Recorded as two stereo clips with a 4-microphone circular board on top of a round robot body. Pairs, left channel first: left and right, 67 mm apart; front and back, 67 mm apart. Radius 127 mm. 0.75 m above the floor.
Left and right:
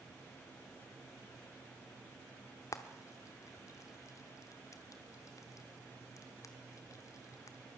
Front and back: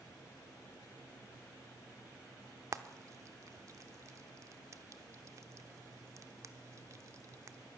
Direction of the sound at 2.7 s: 135° left.